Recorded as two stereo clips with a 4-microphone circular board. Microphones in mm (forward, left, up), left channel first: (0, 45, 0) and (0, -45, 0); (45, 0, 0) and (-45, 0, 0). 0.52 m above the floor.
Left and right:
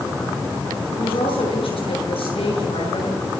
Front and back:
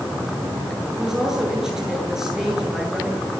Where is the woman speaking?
95° left, 10 m.